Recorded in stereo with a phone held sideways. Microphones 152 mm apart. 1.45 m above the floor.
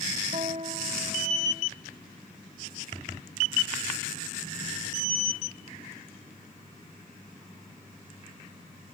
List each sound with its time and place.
0.3 s a guitar: 45° right (ahead or behind)